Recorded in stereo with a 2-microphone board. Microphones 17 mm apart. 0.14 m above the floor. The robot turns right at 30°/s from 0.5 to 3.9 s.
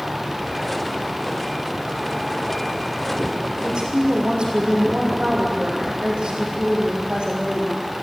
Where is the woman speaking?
70° right (ahead or behind), 6 m; by 7.8 s 65° right (ahead or behind), 6 m.